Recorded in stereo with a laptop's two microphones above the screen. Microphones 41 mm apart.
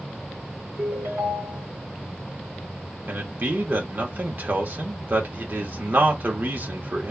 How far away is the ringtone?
About 2 m.